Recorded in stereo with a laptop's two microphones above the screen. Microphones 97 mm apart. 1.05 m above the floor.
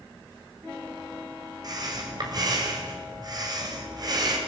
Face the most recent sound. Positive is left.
turn(degrees=-45)  # may be behind; listen again after turning